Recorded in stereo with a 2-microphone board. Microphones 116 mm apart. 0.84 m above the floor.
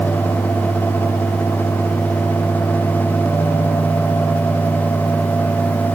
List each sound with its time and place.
Only background noise.